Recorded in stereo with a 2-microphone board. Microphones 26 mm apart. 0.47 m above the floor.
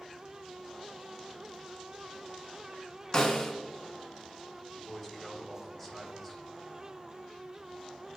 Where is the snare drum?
35° left (ahead or behind), 1.2 m.